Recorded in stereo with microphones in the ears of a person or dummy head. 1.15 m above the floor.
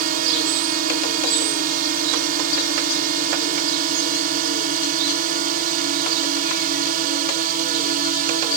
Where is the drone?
45° right (ahead or behind).